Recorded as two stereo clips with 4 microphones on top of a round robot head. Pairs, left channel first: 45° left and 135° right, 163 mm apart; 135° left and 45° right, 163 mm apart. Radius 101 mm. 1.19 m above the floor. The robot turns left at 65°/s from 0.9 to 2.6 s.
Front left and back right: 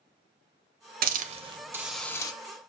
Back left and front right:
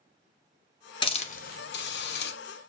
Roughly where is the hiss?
Behind.